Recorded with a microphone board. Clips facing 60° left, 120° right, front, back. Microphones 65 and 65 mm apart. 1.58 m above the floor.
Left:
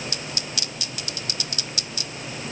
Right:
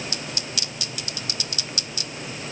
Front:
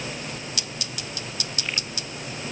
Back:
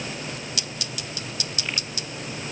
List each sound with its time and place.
Only background noise.